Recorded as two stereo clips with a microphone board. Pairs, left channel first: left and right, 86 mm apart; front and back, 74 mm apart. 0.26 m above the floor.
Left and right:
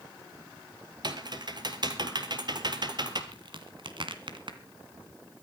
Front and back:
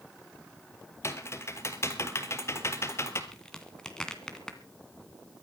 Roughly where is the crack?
Right.